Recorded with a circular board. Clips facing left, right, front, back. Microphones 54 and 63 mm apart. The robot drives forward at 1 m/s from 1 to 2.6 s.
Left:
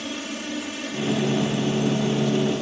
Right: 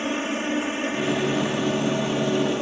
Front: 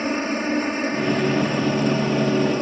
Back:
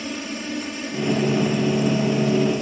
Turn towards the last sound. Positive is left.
turn(degrees=-35)